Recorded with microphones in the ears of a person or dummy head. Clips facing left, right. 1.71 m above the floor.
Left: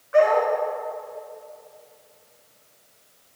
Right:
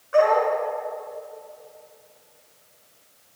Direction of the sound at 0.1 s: 40° right (ahead or behind).